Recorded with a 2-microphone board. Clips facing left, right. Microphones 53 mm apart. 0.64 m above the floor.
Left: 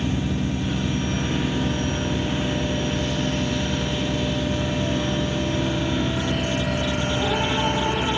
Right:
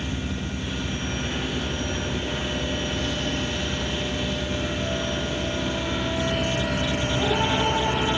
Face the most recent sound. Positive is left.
No sound to turn to.